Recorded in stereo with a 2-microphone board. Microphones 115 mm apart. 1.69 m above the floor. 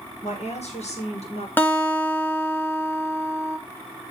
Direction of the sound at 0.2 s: 70° left (ahead or behind).